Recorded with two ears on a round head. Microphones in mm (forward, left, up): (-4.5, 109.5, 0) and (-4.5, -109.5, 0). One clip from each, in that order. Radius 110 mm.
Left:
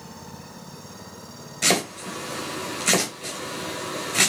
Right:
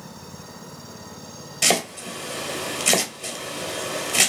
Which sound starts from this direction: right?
Chopping, at 1.6 s.